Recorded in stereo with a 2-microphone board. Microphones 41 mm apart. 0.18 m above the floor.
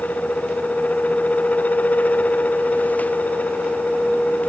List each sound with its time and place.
Only background noise.